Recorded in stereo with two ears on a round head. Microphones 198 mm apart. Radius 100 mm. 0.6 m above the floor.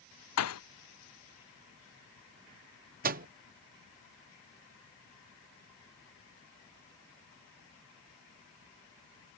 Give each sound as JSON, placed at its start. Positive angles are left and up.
{"t": 0.4, "sound": "a thud", "side_deg": 80}
{"t": 3.0, "sound": "a microwave", "side_deg": -40}